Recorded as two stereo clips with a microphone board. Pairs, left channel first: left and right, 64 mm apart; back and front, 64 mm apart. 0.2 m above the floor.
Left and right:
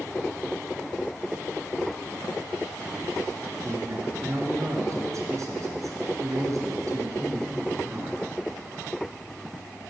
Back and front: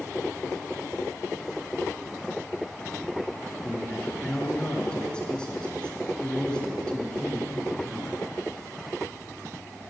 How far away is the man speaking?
About 3 m.